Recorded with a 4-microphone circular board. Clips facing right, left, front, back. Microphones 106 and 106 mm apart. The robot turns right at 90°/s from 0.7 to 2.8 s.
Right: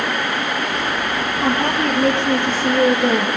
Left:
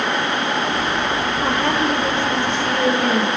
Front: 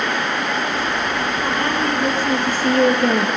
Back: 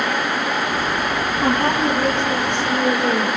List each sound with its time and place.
1.4 s a woman speaking: 145° right, 3.5 m; by 3.3 s 20° right, 3.5 m